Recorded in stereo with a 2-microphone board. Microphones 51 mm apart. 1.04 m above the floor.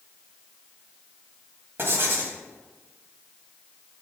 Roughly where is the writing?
Right.